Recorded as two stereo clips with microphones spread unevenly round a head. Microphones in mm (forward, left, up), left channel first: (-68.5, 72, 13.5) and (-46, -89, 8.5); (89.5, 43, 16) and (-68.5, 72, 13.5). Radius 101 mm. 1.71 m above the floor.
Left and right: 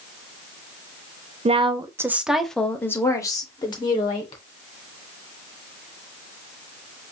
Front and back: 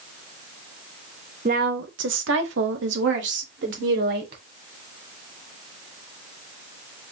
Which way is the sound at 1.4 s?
135° right.